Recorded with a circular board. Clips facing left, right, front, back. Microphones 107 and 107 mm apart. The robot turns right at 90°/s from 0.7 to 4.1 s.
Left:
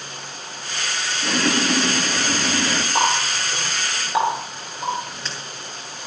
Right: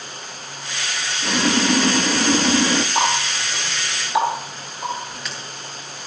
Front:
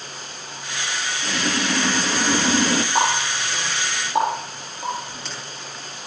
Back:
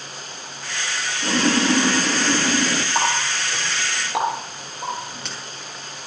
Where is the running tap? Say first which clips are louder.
Even, front 1 dB; 45° left, 9.5 m; by 5.4 s 150° left, 9.5 m.